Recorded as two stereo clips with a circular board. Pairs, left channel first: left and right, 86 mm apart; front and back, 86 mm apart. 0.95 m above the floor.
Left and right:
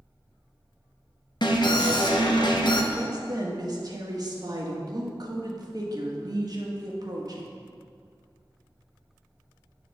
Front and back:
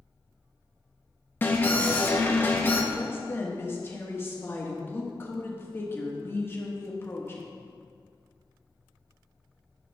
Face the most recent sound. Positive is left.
turn(degrees=-60)